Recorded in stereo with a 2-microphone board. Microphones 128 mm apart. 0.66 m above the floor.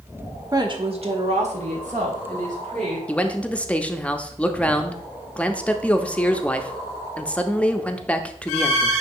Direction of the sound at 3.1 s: 10° left (ahead or behind).